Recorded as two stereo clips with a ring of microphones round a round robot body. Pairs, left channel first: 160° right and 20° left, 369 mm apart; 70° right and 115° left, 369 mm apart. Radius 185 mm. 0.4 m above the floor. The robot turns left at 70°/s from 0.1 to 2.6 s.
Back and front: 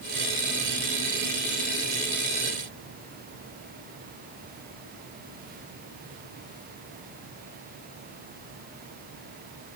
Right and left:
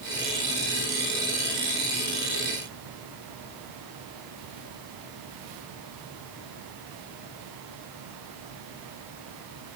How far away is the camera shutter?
I don't hear a camera shutter.